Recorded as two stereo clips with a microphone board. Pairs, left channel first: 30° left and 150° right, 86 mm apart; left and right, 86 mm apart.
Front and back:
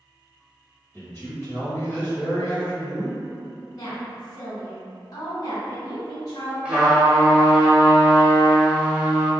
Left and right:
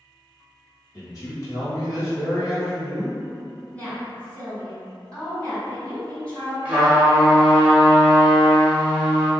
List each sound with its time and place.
0.9 s a man speaking: 70° left, 1.5 m
3.7 s a woman speaking: 15° left, 1.6 m
6.7 s a trumpet: 110° right, 1.2 m